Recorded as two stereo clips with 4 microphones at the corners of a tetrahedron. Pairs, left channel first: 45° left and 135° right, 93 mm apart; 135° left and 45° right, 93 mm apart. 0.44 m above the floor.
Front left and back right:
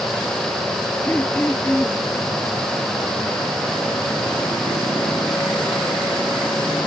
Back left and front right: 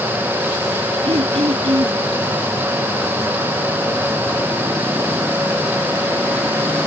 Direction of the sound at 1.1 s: 30° right.